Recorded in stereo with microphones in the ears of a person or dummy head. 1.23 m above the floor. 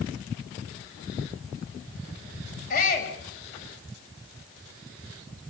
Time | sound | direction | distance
2.7 | a shout | 50° left (ahead or behind) | 5.5 m